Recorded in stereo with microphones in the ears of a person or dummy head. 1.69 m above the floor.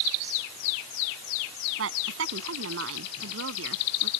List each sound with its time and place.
1.8 s a woman speaking: 90° right